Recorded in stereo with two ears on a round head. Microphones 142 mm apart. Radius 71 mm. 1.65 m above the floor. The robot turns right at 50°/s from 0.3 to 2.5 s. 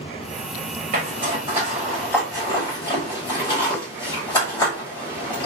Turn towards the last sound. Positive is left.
turn(degrees=25)  # may be behind; listen again after turning